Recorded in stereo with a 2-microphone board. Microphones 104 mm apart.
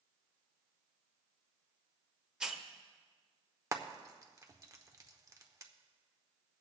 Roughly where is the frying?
Right.